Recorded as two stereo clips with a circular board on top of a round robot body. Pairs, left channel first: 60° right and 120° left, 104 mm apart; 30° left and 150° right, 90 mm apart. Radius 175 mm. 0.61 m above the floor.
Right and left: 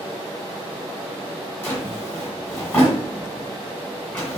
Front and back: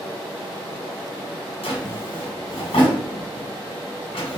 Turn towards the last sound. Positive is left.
turn(degrees=20)